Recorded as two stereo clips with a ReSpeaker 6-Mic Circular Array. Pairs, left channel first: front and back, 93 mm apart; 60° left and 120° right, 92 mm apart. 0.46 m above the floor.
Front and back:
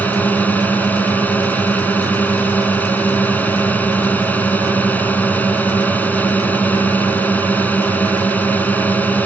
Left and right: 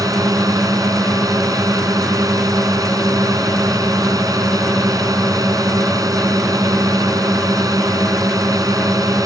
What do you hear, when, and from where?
0.0 s a drone: 70° right